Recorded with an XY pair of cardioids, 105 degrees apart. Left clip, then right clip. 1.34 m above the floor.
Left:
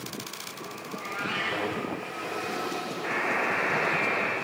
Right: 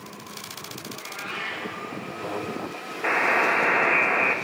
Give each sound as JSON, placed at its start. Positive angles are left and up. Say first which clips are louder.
{"t": 0.9, "sound": "a cat meowing", "louder": "left 3 dB", "azimuth_deg": 40, "distance_m": 3.5}
{"t": 3.0, "sound": "a buzzer", "louder": "right 7 dB", "azimuth_deg": -65, "distance_m": 1.1}